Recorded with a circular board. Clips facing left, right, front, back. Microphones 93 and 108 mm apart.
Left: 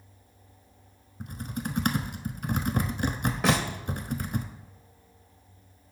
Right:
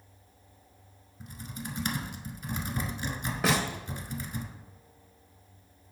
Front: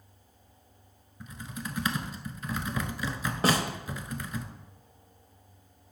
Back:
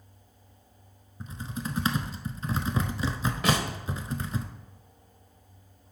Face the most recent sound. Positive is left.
turn(degrees=0)